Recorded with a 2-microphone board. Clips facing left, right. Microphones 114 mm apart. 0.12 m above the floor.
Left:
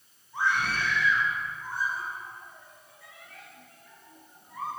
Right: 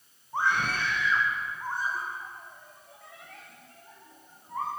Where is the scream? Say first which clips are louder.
Even; 50° right (ahead or behind), 7 m; by 4.7 s 45° right (ahead or behind), 10.5 m.